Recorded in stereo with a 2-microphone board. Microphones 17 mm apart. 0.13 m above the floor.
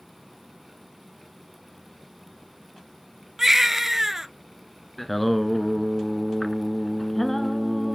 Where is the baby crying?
20° right (ahead or behind), 0.7 m.